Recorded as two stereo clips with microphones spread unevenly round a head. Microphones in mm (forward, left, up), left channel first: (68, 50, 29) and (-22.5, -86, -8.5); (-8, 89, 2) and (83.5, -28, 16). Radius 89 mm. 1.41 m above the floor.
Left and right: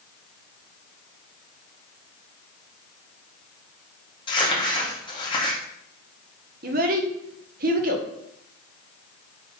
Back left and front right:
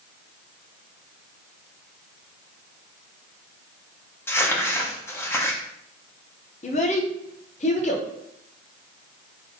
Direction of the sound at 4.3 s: 55° left.